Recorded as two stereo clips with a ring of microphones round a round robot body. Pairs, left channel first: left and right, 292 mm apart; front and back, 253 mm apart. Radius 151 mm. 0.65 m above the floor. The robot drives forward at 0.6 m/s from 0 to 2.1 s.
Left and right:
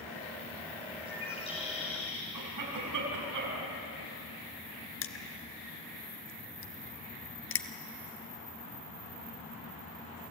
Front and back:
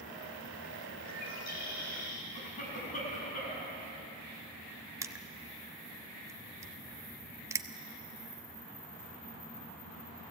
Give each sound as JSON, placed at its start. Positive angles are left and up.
{"t": 1.0, "sound": "a bird", "azimuth_deg": 20, "distance_m": 6.5}
{"t": 2.3, "sound": "a cough", "azimuth_deg": -65, "distance_m": 6.0}
{"t": 5.0, "sound": "crushing", "azimuth_deg": 105, "distance_m": 1.1}